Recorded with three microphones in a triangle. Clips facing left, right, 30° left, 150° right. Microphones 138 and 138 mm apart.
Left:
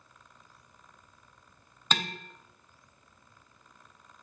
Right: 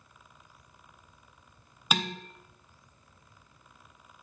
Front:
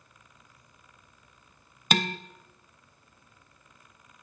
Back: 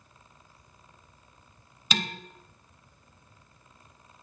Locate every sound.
1.9 s dishes clattering: 10° right, 0.7 m